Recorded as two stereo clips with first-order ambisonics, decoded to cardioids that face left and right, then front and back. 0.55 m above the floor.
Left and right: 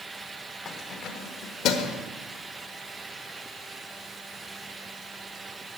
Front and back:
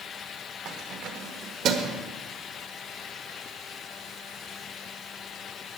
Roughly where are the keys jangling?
Behind left.